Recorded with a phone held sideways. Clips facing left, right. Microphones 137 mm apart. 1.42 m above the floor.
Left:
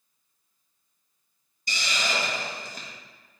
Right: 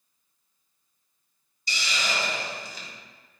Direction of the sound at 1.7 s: 50° left (ahead or behind).